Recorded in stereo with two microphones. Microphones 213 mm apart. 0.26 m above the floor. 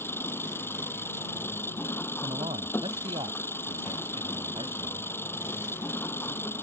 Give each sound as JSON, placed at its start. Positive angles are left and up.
{"t": 0.0, "sound": "an engine running", "side_deg": 10}
{"t": 2.2, "sound": "a man speaking", "side_deg": -25}